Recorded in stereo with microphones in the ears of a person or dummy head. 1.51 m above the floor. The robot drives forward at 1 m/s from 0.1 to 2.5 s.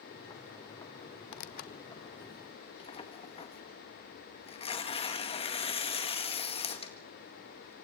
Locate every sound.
1.3 s tearing paper: 60° left (ahead or behind), 1.0 m; by 7.7 s 30° left (ahead or behind), 1.9 m